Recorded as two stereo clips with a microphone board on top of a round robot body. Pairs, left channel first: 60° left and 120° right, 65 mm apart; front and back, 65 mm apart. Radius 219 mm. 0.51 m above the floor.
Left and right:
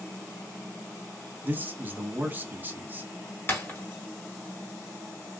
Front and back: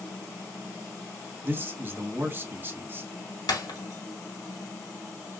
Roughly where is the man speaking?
Behind.